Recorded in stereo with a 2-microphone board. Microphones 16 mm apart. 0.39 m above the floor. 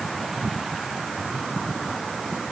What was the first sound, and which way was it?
Only background noise.